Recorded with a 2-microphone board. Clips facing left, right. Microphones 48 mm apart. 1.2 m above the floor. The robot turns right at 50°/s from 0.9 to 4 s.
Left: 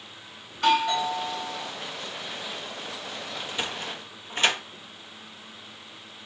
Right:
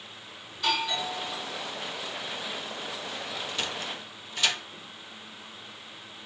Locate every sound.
0.5 s a doorbell: 75° left, 2.5 m; by 1.7 s 115° left, 2.5 m
3.4 s a sliding door: 10° left (ahead or behind), 0.6 m; by 4.6 s 35° left (ahead or behind), 0.6 m